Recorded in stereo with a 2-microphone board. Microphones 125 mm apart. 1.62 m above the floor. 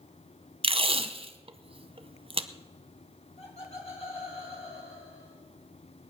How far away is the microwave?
I don't hear a microwave.